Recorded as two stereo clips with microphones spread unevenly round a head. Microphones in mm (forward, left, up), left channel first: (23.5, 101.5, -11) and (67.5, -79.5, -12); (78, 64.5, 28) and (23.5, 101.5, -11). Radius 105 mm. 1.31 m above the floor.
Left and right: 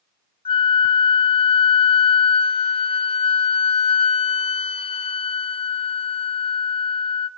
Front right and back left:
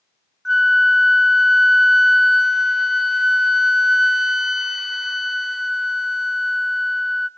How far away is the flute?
About 0.9 m.